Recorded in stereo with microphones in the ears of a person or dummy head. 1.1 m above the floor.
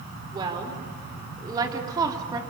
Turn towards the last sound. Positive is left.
turn(degrees=-20)  # may be behind; listen again after turning